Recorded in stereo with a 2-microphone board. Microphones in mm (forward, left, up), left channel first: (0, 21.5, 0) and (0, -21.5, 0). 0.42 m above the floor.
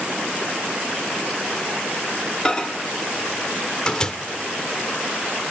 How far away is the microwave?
About 0.6 m.